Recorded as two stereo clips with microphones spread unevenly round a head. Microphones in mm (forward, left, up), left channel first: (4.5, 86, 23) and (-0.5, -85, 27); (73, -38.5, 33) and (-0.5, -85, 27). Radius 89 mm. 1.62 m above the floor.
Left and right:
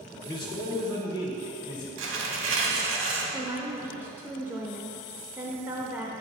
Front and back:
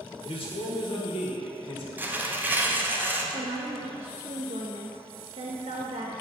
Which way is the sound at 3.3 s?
170° right.